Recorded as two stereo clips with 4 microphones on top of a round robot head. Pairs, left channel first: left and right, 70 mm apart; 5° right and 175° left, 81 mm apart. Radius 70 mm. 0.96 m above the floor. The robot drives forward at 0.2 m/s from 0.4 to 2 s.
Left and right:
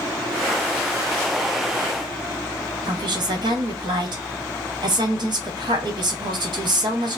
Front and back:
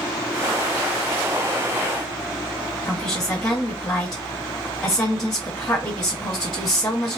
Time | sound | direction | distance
2.9 | a woman speaking | 90° right | 1.2 m